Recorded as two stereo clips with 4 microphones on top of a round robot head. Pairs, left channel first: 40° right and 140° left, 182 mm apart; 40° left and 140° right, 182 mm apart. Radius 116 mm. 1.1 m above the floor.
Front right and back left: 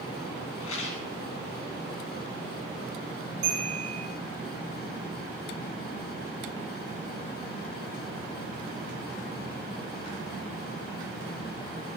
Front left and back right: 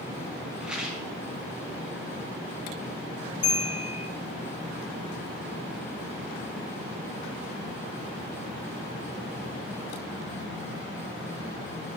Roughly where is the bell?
Left.